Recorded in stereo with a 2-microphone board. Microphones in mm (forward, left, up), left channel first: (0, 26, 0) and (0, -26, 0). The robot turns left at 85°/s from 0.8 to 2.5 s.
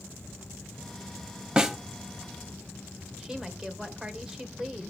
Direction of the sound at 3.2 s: 10° right (ahead or behind).